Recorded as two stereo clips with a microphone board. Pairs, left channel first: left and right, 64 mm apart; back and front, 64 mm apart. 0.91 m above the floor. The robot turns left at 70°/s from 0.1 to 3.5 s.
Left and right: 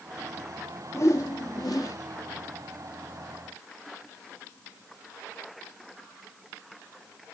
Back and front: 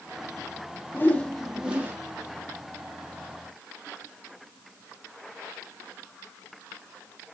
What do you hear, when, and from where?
0.9 s a whoosh: 130° left, 1.4 m; by 2.0 s 55° left, 1.4 m